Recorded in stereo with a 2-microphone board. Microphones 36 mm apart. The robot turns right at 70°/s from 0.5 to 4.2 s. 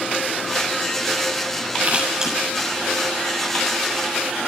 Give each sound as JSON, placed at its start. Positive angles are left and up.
{"t": 1.8, "sound": "scissors", "side_deg": -45, "distance_m": 7.0}